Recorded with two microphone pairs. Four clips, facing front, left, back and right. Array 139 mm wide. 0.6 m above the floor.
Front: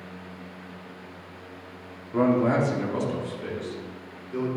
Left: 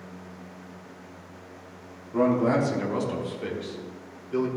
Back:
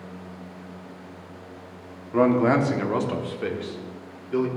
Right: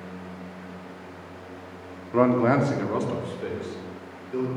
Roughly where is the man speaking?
Behind right.